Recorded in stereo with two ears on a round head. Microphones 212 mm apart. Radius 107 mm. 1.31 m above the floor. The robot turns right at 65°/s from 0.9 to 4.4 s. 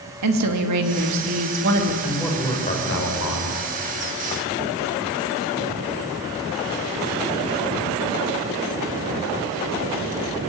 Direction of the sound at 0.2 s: 95° right.